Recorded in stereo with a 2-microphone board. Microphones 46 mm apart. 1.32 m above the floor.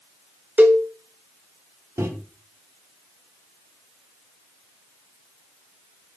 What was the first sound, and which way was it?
A cowbell, 35° right (ahead or behind).